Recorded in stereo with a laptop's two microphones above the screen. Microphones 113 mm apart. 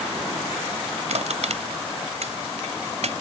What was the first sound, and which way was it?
Crushing, 75° right (ahead or behind).